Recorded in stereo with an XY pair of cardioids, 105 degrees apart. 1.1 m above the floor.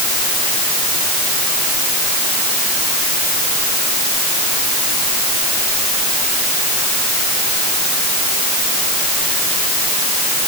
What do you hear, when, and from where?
Only background noise.